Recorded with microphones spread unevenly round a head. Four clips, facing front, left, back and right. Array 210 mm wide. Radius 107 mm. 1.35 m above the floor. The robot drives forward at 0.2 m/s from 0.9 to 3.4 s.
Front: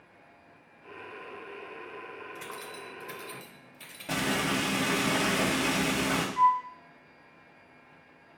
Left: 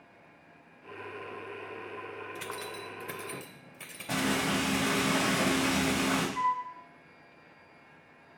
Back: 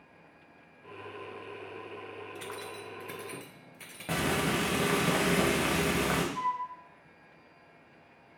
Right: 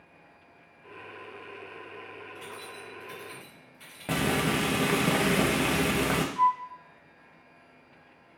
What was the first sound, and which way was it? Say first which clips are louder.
Keys jangling: left 3 dB, back 1 dB; 80° left.